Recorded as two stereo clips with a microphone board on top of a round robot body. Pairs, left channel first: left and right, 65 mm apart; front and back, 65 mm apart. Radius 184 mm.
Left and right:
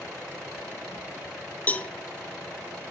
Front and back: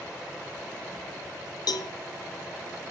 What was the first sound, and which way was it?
A cowbell, 20° left.